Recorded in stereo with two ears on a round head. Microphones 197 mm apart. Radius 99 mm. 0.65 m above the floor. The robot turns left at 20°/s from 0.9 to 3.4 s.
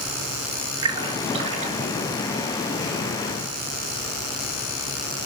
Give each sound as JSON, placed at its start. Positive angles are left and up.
{"t": 0.8, "sound": "a splash", "side_deg": -20, "distance_m": 4.0}